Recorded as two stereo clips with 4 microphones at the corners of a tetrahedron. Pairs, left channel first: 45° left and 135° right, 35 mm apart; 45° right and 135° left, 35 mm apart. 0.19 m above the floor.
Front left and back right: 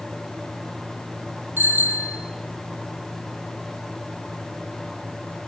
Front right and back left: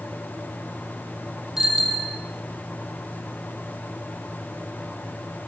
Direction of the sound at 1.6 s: 150° right.